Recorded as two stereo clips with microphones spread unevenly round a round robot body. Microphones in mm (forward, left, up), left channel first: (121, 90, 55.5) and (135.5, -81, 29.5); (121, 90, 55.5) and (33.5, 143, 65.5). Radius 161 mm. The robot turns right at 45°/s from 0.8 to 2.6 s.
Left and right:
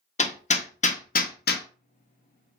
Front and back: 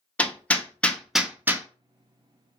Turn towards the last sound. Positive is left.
turn(degrees=125)